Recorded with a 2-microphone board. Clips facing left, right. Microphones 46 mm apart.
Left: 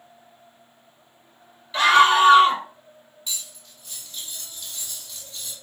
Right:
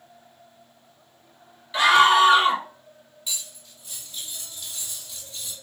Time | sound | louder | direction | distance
1.7 | a scream | even | 10° right (ahead or behind) | 2.5 m
3.3 | cutlery clinking | even | 10° right (ahead or behind) | 2.5 m